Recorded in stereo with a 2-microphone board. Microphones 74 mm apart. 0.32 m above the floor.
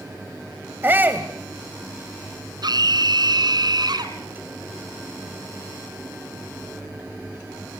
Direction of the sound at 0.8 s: 30° right (ahead or behind).